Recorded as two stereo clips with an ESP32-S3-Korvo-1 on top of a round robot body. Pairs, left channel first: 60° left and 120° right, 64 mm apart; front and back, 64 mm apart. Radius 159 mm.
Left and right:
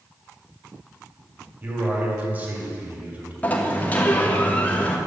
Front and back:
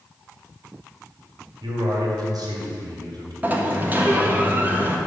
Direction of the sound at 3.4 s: 120° left.